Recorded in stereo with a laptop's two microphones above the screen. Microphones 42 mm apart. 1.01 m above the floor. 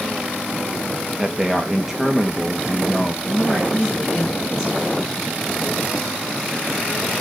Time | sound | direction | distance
1.2 | a man speaking | 10° right (ahead or behind) | 1.4 m
3.2 | a woman speaking | 5° left (ahead or behind) | 7 m